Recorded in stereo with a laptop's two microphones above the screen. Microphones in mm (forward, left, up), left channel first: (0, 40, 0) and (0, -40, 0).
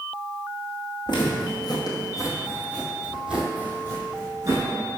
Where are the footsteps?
70° left (ahead or behind), 2.5 m; by 4.7 s 40° right (ahead or behind), 3 m.